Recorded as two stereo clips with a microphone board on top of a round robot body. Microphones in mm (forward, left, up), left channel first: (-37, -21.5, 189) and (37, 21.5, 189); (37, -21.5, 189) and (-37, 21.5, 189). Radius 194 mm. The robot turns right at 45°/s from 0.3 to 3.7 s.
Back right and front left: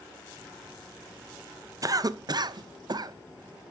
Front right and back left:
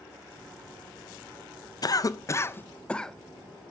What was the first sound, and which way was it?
A cough, 5° right.